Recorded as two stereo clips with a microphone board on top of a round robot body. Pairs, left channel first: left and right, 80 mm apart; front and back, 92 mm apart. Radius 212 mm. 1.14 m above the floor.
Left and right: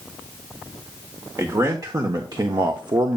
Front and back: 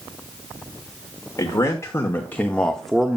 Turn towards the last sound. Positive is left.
turn(degrees=-105)